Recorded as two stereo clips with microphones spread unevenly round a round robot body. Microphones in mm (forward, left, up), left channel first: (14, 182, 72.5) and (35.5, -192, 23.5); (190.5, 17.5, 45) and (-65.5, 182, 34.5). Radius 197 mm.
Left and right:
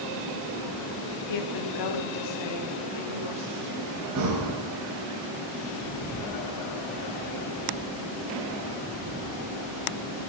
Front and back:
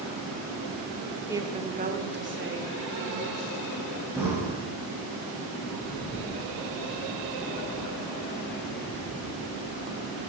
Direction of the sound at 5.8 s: 40° left.